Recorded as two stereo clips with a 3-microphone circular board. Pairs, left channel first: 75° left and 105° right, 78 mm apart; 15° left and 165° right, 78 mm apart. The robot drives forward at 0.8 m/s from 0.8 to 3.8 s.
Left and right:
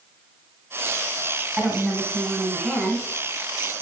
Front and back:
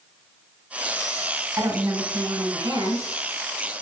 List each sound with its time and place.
1.6 s a woman speaking: 165° left, 1.9 m; by 3.1 s 175° left, 3 m